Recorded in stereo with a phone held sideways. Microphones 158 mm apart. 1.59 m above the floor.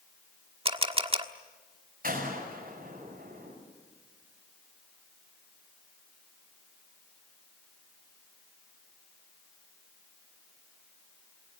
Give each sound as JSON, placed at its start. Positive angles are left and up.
{"t": 0.7, "sound": "a camera shutter", "side_deg": -35, "distance_m": 1.3}
{"t": 2.0, "sound": "a gunshot", "side_deg": -65, "distance_m": 6.5}